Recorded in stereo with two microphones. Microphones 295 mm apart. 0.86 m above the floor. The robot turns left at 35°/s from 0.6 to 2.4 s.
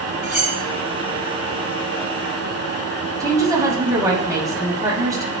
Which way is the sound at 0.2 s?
85° left.